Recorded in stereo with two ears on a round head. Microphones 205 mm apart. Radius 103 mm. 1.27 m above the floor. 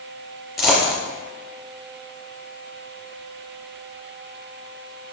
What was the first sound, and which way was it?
A dropped coin, centre (ahead or behind).